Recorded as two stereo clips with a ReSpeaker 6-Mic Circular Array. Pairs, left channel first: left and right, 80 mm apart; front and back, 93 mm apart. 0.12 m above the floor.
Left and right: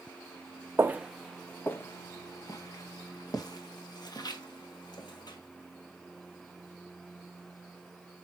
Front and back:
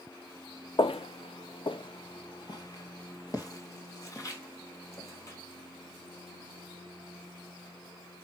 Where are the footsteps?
30° right, 0.7 m; by 5.4 s 60° left, 4 m.